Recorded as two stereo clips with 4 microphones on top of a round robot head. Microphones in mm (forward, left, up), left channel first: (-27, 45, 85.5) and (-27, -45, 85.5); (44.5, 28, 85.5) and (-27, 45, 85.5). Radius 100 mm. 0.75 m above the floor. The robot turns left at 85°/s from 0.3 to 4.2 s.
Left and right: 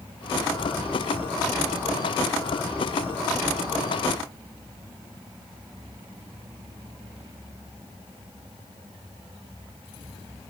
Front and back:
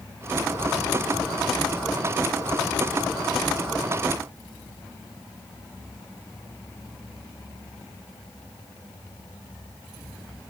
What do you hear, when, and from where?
Only background noise.